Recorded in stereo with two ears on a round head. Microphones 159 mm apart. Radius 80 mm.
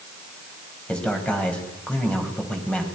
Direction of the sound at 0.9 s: 5° left (ahead or behind).